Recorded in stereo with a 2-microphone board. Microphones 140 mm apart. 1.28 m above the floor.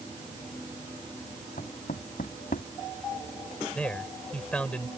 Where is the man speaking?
10° left (ahead or behind).